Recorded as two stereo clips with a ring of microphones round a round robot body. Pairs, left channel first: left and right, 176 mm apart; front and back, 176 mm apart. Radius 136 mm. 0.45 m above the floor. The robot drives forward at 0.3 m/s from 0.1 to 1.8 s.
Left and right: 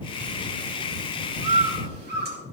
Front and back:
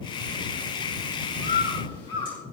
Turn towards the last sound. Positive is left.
turn(degrees=-70)